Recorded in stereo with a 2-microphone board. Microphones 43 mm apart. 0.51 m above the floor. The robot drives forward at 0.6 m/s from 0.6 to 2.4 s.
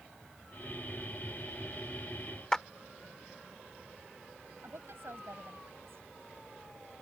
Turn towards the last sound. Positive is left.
turn(degrees=-70)  # may be behind; listen again after turning